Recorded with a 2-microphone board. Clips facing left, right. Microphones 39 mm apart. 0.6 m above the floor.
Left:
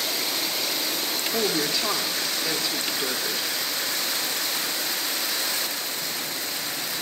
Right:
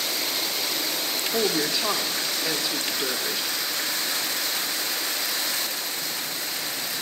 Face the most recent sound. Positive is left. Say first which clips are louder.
# right 1 dB
turn(degrees=-10)  # may be behind; listen again after turning